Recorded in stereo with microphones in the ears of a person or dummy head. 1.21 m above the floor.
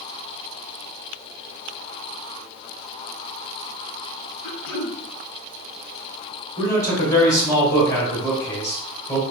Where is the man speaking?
20° left (ahead or behind), 1.7 m.